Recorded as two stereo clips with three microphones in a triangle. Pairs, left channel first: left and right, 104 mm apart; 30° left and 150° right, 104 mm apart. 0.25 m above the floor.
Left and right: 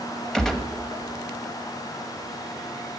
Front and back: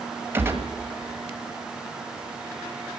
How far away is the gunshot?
About 1.3 m.